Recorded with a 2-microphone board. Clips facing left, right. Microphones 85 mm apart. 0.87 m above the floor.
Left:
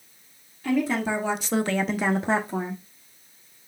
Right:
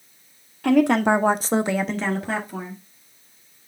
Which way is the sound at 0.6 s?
75° right (ahead or behind).